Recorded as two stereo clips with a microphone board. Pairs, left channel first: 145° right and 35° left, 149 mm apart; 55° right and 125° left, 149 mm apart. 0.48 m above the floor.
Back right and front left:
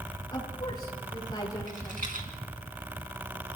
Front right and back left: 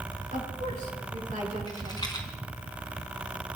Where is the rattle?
5° left, 4 m.